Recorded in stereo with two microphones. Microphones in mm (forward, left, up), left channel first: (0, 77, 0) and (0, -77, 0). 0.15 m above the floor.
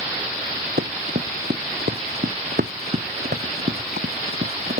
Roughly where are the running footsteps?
Right.